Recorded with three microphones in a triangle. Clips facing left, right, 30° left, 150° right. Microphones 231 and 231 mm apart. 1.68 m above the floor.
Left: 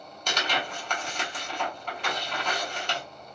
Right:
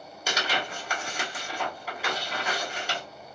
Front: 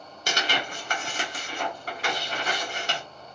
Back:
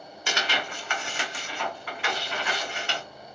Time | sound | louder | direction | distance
0.3 | tearing paper | even, front 1 dB | 10° right | 1.0 m